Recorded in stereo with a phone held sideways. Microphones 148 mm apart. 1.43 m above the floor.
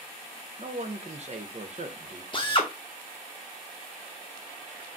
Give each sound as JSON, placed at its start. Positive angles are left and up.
{"t": 0.6, "sound": "a man speaking", "side_deg": -50, "distance_m": 0.6}
{"t": 2.3, "sound": "a drill", "side_deg": 35, "distance_m": 0.6}